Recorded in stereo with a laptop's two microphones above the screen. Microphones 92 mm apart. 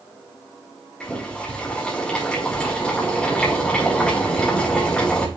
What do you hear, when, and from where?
1.0 s boiling: 10° left (ahead or behind), 2.5 m